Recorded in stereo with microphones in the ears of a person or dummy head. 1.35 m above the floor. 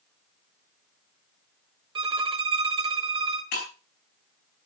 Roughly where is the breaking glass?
Left.